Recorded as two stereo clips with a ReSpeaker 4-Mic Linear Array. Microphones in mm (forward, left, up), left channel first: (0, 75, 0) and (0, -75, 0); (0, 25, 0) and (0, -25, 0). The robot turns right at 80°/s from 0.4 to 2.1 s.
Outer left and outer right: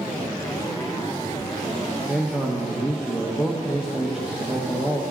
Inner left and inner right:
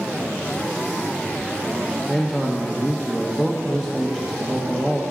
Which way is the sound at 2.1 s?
5° right (ahead or behind).